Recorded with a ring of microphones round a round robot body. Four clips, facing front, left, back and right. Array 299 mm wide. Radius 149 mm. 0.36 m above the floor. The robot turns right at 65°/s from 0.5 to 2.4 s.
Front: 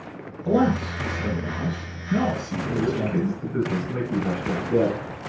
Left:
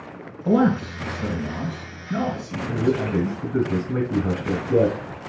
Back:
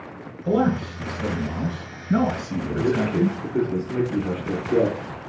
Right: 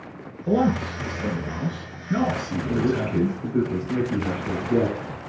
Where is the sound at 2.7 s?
80° left, 3 m.